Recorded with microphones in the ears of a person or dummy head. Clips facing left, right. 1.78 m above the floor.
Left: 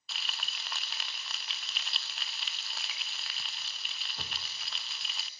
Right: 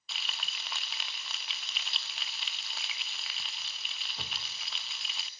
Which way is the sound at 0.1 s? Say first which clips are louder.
Even; centre (ahead or behind).